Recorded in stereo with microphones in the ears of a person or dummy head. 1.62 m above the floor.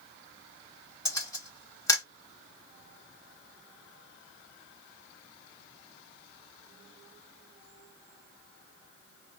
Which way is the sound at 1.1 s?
15° left (ahead or behind).